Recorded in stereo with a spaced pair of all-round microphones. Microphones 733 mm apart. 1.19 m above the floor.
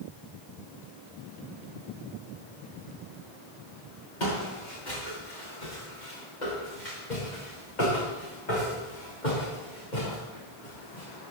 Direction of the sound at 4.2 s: 85° left.